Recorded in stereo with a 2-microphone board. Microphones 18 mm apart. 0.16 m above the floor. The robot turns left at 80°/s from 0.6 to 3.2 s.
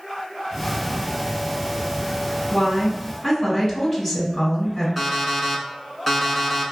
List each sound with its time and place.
2.5 s a woman speaking: centre (ahead or behind), 1.5 m; by 4.9 s 20° left (ahead or behind), 1.5 m
5.0 s an alarm clock: 15° left (ahead or behind), 1.0 m